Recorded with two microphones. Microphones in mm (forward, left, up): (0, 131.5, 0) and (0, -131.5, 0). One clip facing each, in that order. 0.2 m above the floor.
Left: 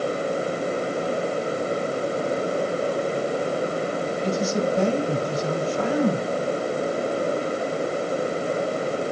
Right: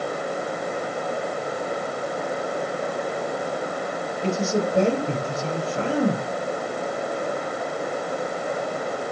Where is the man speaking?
75° right (ahead or behind), 5.5 m.